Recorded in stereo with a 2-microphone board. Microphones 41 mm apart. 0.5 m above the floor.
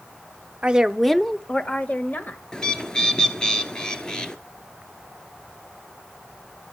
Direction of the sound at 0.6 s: 25° right (ahead or behind).